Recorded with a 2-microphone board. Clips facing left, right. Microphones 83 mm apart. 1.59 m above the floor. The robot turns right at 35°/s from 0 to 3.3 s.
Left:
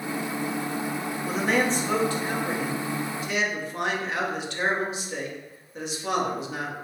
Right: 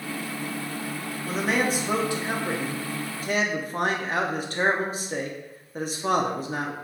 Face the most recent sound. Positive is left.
turn(degrees=-115)